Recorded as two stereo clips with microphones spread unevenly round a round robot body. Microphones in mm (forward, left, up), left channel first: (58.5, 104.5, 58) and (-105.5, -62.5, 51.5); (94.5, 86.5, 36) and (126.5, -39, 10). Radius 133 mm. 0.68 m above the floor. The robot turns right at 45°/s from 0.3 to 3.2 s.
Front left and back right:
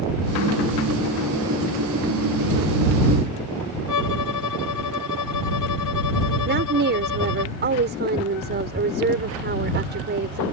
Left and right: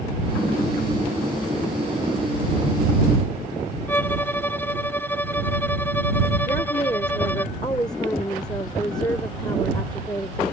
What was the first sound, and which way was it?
A violin, 30° left.